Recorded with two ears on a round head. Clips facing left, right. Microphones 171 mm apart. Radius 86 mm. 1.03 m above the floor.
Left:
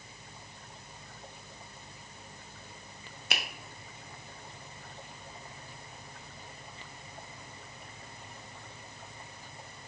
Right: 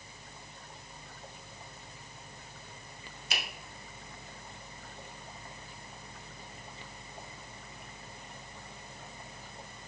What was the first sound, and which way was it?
A finger snap, 50° left (ahead or behind).